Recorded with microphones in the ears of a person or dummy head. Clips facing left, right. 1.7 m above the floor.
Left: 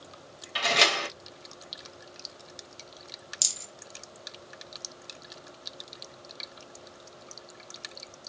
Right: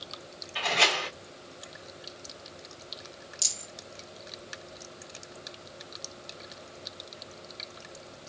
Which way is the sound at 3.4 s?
20° left (ahead or behind).